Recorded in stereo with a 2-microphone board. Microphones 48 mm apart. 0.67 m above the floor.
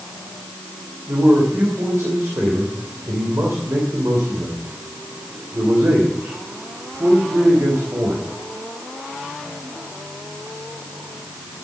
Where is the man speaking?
70° right (ahead or behind), 2.5 m.